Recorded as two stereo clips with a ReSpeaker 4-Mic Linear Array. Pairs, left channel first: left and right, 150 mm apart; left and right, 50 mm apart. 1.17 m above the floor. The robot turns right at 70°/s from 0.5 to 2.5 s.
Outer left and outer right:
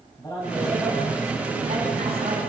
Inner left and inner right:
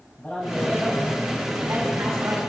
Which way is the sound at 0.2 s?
160° left.